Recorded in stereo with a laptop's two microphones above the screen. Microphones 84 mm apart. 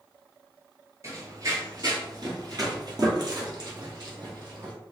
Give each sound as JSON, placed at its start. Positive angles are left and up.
{"t": 1.0, "sound": "running footsteps", "side_deg": -35, "distance_m": 1.2}